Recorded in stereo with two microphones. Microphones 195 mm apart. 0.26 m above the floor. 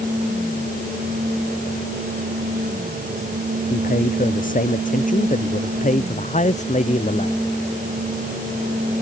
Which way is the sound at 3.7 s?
45° left (ahead or behind).